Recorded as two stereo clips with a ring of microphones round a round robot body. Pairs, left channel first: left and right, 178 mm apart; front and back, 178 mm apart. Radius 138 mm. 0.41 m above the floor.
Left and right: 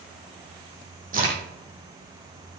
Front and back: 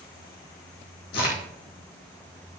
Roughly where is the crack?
Ahead right.